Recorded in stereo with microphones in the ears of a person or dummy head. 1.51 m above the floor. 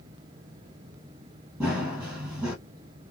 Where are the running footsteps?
15° right (ahead or behind), 2.5 m.